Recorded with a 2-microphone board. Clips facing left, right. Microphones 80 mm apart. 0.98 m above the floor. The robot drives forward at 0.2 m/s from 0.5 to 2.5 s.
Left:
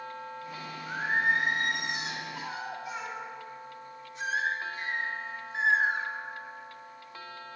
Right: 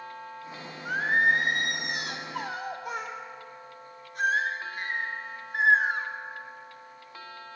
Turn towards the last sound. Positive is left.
turn(degrees=-50)  # may be behind; listen again after turning